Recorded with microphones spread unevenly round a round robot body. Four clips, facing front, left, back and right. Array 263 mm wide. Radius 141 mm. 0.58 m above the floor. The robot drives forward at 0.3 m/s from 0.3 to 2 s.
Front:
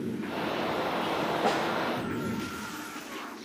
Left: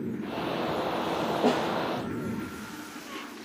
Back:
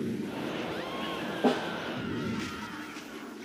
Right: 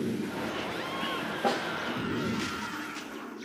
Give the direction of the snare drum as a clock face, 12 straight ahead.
9 o'clock.